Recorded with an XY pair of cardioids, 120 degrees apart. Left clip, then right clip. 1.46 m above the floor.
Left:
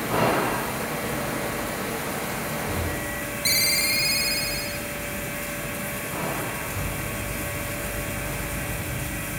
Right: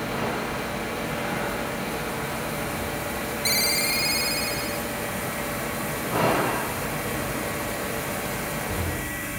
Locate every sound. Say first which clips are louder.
3.5 s a ringtone: left 2 dB; 10° left, 2 m